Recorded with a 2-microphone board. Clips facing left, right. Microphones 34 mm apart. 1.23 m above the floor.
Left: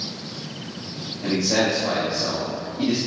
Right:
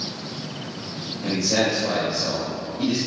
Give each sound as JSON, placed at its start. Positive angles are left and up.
{"t": 1.2, "sound": "a man speaking", "side_deg": 30, "distance_m": 2.5}